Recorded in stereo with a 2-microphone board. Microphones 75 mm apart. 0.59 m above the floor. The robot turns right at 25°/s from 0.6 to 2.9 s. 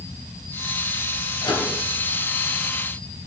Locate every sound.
1.4 s a microwave: 75° left (ahead or behind), 3 m